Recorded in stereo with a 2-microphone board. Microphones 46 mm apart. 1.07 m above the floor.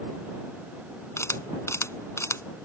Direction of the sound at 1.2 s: 85° left.